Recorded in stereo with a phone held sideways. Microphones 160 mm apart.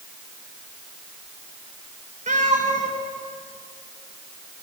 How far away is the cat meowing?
About 1.8 m.